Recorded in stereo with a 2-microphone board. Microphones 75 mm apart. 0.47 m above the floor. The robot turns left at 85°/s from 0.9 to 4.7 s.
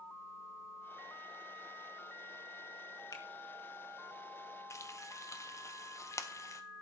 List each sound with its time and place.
3.1 s a finger snap: 60° left (ahead or behind), 1.2 m; by 3.2 s 65° left (ahead or behind), 1.2 m
4.7 s frying: 40° left (ahead or behind), 1.0 m